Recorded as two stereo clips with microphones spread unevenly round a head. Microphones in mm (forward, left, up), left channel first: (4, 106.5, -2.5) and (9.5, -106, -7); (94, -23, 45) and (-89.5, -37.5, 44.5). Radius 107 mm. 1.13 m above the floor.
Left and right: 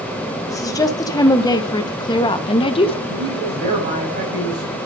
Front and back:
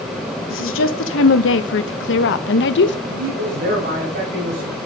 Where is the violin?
I don't hear a violin.